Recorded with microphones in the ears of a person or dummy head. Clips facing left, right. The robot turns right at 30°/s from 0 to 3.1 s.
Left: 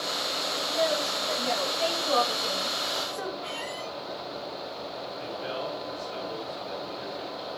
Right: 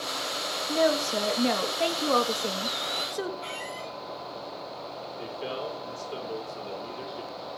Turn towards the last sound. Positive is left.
turn(degrees=-55)  # may be behind; listen again after turning